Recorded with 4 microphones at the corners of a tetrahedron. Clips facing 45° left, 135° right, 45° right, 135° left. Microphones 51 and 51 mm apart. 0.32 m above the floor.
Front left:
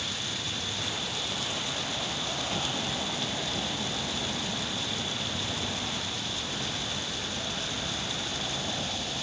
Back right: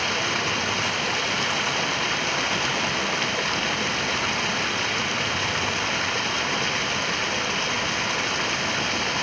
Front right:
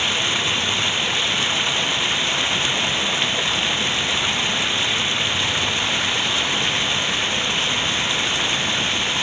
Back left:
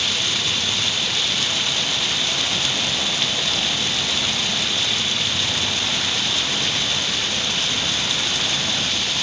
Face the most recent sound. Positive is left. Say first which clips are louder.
# back right 11 dB, front right 2 dB
turn(degrees=-110)